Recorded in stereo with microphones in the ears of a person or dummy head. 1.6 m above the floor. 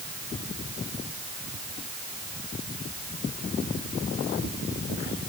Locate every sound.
Only background noise.